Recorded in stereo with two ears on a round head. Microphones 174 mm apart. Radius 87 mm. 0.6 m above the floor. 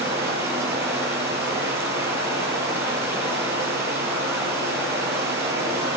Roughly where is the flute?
No flute in this recording.